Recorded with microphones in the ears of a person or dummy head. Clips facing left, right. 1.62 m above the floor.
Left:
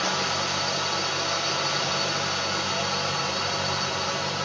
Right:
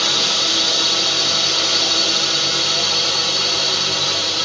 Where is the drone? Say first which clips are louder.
Right 3 dB; 50° right (ahead or behind).